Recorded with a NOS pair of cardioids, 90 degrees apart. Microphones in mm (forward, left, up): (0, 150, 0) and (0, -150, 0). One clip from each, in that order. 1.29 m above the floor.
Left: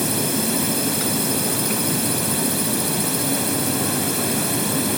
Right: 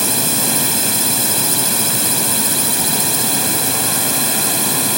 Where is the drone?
55° right.